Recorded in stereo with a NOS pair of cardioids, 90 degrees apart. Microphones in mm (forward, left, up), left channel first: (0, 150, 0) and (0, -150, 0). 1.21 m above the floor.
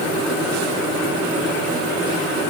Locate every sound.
Only background noise.